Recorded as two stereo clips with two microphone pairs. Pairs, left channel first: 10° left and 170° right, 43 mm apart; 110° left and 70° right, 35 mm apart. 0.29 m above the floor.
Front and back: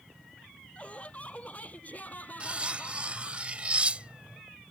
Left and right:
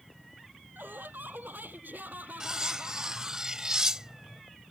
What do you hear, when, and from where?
0.8 s laughter: 50° right; by 3.4 s 35° right
2.4 s cutlery clinking: 130° right